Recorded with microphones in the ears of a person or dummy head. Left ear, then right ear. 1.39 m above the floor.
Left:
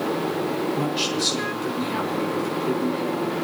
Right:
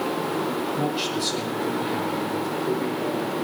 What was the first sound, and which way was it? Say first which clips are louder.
A man speaking: left 1 dB; 20° left (ahead or behind).